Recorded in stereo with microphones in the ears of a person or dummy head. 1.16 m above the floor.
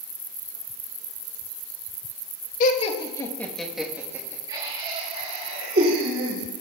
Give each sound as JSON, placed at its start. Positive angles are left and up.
{"t": 2.6, "sound": "laughter", "side_deg": 45, "distance_m": 1.2}